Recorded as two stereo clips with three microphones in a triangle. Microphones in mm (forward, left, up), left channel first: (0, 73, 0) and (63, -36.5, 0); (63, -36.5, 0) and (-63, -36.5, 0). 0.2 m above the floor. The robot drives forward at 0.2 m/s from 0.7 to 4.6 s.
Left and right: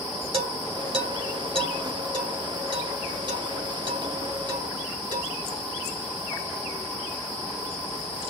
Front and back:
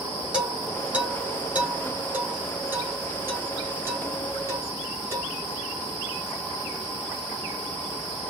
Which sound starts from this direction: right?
Dishes clattering, at 0.3 s.